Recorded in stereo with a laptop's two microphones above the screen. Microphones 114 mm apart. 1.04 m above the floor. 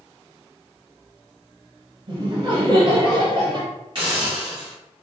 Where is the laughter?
40° right (ahead or behind), 1.0 m.